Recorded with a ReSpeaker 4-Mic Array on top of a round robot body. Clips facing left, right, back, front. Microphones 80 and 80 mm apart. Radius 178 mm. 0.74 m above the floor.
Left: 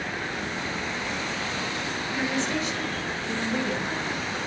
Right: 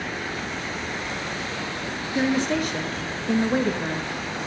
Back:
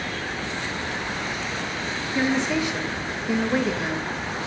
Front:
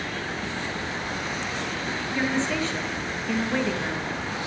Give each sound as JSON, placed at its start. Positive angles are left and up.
{"t": 2.1, "sound": "a woman speaking", "azimuth_deg": -105, "distance_m": 1.1}